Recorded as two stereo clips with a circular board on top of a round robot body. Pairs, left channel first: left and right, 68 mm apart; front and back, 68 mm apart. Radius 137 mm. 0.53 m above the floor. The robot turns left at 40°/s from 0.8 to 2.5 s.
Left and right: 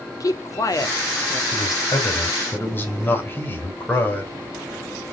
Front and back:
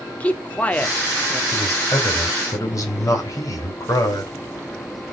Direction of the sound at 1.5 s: 70° left.